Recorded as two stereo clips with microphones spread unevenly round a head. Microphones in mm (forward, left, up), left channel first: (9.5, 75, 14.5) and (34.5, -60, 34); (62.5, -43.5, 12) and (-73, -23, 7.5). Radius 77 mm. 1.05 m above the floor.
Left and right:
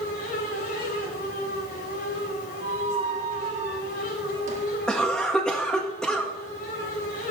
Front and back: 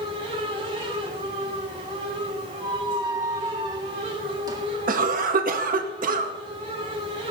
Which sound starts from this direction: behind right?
A squeak, at 2.6 s.